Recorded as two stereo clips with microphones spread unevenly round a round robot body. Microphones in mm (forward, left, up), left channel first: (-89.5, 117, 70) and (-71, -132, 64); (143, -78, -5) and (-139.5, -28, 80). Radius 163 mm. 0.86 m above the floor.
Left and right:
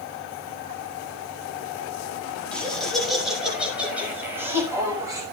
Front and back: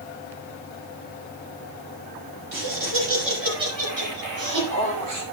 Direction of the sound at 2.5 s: Straight behind.